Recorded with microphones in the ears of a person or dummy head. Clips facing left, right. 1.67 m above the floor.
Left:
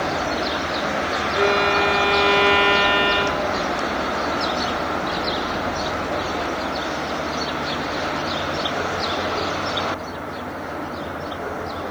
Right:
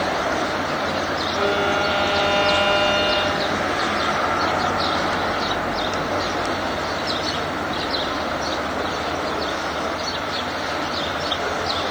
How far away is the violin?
About 6.5 m.